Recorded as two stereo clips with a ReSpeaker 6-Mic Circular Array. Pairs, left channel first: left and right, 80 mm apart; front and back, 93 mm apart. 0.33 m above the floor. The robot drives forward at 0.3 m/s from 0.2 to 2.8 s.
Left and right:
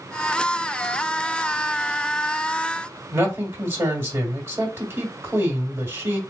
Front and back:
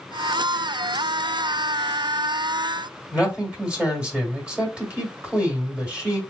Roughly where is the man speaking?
Behind right.